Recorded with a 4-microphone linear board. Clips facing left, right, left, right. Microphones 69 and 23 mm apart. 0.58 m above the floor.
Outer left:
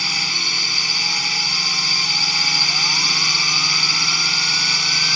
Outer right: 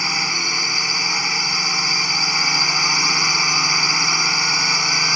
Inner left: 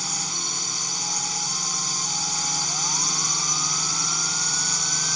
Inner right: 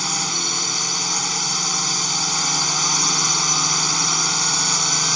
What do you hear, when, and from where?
0.0 s a drone: 25° right (ahead or behind)